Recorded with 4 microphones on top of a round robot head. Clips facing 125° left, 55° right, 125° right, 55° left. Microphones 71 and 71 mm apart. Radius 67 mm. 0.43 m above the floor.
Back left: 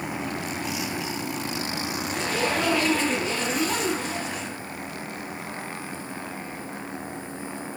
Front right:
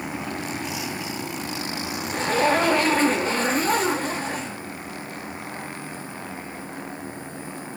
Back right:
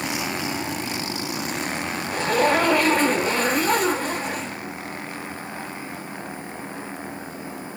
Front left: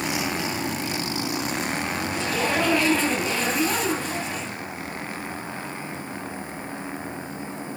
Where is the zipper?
95° right, 1.1 m.